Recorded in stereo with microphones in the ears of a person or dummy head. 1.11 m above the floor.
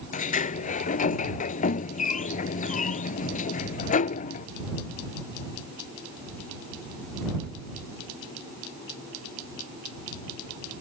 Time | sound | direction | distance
0.1 | a sliding door | 35° left (ahead or behind) | ?